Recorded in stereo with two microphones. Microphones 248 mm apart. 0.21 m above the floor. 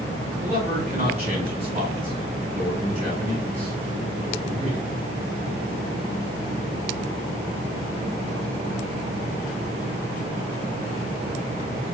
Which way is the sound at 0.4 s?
25° right (ahead or behind).